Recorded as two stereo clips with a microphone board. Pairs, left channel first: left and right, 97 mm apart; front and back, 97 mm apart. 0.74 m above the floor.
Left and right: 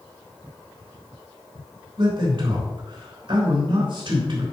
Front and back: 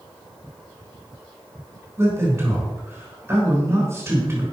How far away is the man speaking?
About 3.5 m.